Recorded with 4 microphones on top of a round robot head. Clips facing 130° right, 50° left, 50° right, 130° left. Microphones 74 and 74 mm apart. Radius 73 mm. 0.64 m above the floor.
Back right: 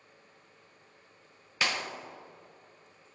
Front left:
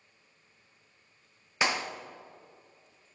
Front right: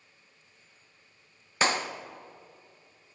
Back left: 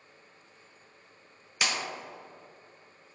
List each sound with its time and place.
1.6 s a clap: 10° right, 0.5 m